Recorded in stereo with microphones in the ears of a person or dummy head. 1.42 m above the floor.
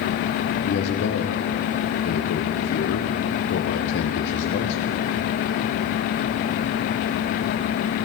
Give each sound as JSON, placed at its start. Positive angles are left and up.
{"t": 0.7, "sound": "a man speaking", "side_deg": 65, "distance_m": 0.8}